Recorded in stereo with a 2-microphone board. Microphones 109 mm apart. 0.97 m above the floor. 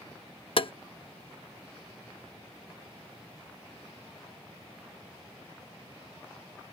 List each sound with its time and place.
0.6 s tapping: 55° left (ahead or behind)